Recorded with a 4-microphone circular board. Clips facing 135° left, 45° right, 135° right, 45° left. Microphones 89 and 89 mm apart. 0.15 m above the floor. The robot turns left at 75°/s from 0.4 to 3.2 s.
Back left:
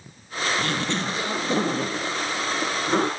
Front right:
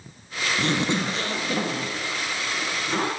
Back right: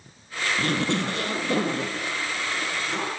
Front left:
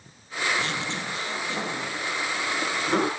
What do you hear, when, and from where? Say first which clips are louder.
0.6 s a zipper: front right 2 dB, back right 5 dB; 100° right, 3.5 m; by 3.1 s 70° left, 3.5 m